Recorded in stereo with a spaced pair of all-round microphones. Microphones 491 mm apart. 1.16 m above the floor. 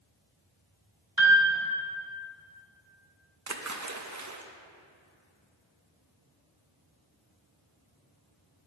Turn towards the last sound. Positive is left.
turn(degrees=-35)  # may be behind; listen again after turning